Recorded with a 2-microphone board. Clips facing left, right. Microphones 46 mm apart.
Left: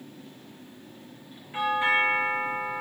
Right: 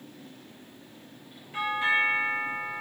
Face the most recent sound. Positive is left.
turn(degrees=25)  # may be behind; listen again after turning